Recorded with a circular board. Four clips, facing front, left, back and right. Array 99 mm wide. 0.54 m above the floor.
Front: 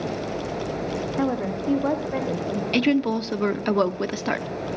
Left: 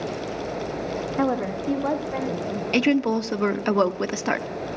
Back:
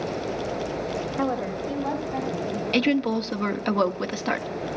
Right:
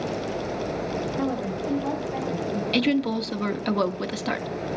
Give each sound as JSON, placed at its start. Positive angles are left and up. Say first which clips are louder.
{"t": 1.2, "sound": "a woman speaking", "louder": "left 3 dB, front 2 dB", "azimuth_deg": 75, "distance_m": 1.7}
{"t": 2.7, "sound": "a woman speaking", "louder": "left 3 dB, front 1 dB", "azimuth_deg": 85, "distance_m": 0.7}